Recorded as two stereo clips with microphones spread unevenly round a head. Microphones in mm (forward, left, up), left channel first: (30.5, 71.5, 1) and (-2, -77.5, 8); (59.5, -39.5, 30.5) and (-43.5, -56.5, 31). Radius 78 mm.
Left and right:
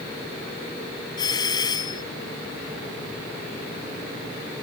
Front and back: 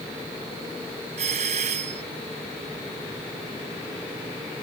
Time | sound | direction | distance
1.2 | a doorbell | 145° left | ?